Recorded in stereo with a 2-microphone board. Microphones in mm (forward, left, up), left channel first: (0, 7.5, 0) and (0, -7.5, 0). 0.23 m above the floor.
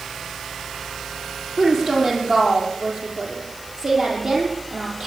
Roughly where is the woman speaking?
Right.